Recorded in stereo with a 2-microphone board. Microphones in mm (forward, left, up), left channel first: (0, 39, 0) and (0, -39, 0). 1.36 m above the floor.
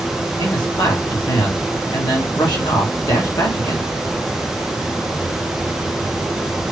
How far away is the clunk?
No clunk in this recording.